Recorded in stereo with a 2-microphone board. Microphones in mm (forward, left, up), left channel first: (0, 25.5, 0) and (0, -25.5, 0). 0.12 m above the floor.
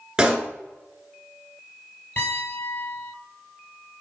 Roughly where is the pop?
Centre.